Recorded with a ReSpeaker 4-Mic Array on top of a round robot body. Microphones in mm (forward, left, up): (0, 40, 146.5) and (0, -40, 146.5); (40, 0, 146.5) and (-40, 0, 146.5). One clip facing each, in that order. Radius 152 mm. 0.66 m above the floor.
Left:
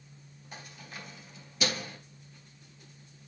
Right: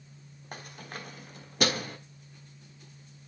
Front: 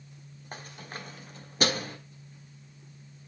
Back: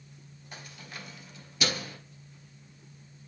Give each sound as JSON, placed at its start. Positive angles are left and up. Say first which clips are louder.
{"t": 0.5, "sound": "keys jangling", "louder": "right 4 dB, front 4 dB", "azimuth_deg": -50, "distance_m": 1.5}